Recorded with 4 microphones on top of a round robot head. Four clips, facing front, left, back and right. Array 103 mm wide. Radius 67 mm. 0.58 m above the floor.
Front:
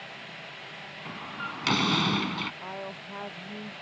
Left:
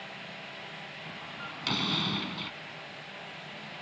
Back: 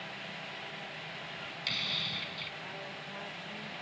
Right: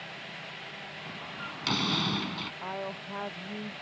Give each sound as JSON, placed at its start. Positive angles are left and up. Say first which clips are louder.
{"t": 1.1, "sound": "a door slam", "louder": "right 2 dB, front 7 dB", "azimuth_deg": -10}
{"t": 2.6, "sound": "a woman speaking", "louder": "right 8 dB, front 6 dB", "azimuth_deg": -60}